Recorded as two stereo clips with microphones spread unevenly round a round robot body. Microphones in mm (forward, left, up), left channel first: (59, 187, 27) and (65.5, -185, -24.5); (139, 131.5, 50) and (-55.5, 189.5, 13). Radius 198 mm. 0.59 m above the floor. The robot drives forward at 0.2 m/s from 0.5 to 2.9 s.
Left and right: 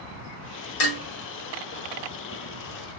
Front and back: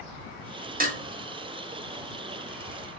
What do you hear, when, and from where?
0.8 s dishes clattering: 115° left, 1.1 m; by 1.0 s 120° left, 1.1 m